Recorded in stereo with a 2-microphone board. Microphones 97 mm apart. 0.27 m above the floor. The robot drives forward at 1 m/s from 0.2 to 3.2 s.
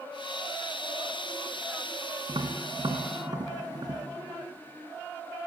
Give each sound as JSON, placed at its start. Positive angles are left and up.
{"t": 2.3, "sound": "tapping", "side_deg": -55, "distance_m": 2.5}